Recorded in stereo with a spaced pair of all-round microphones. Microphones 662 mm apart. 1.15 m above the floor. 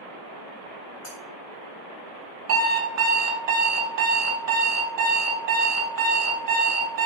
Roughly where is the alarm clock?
Right.